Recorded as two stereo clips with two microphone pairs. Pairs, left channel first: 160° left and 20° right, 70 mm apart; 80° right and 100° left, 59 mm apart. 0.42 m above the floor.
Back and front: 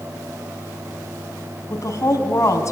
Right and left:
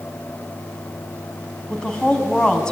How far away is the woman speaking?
About 3.5 m.